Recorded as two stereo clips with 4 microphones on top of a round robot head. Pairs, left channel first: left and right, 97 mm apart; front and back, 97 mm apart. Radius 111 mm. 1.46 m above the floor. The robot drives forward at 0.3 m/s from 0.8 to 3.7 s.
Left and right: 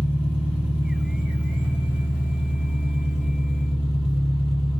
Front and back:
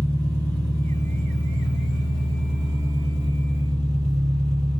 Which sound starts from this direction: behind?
An engine running, at 0.0 s.